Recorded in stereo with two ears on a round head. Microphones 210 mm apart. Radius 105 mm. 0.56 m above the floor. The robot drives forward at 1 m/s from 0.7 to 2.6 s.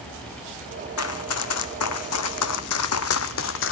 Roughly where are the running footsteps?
Left.